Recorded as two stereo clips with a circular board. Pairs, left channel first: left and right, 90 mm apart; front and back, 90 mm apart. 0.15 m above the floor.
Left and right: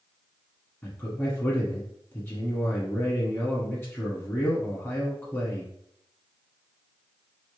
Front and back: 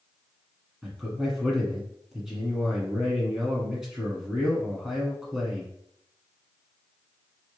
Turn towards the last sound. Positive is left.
turn(degrees=100)